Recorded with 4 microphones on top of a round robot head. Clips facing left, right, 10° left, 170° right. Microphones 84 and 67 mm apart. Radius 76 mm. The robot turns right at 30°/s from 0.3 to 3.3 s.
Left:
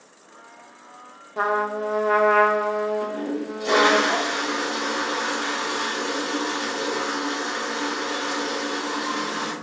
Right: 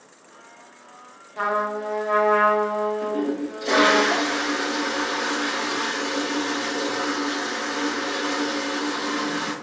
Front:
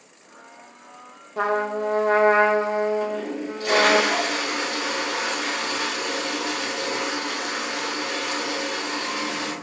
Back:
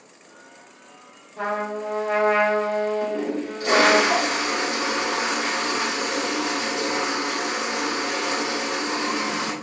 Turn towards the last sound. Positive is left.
turn(degrees=125)